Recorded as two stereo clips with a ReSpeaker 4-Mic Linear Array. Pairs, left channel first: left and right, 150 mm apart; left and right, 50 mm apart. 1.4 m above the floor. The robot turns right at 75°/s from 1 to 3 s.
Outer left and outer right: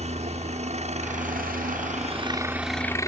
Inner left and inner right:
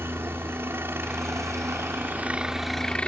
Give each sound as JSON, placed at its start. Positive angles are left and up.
{"t": 0.0, "sound": "a helicopter", "azimuth_deg": -130}